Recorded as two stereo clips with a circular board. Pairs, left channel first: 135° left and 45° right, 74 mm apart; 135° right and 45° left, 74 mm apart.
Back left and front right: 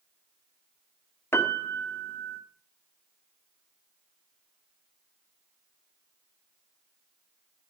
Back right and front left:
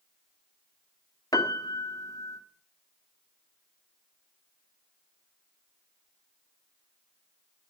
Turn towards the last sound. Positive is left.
turn(degrees=-170)